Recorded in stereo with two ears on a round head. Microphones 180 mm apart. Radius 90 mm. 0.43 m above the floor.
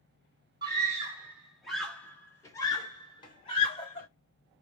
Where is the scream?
20° right (ahead or behind), 1.2 m; by 4.1 s 30° left (ahead or behind), 1.9 m.